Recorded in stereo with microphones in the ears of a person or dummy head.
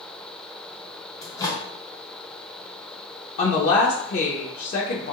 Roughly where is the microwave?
Left.